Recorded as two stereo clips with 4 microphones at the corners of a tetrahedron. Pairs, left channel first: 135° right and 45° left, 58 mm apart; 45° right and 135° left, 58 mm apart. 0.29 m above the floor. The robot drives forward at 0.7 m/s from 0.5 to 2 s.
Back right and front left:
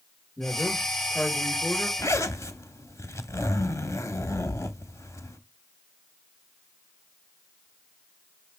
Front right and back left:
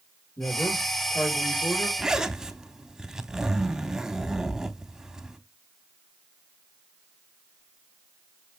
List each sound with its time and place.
0.4 s a man speaking: 65° right, 4.5 m; by 1.9 s 75° right, 4 m
2.0 s a zipper: 145° right, 0.7 m